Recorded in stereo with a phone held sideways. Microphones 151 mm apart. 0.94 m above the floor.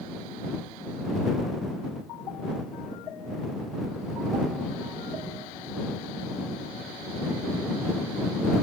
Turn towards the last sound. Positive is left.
No sound to turn to.